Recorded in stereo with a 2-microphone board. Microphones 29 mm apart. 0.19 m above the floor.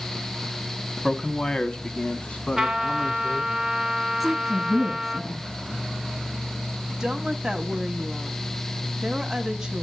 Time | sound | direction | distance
1.0 | a man speaking | 20° left (ahead or behind) | 1.1 m
2.6 | a trumpet | 15° right (ahead or behind) | 1.9 m
4.2 | a woman speaking | 10° right (ahead or behind) | 1.3 m
7.0 | a woman speaking | 15° right (ahead or behind) | 1.0 m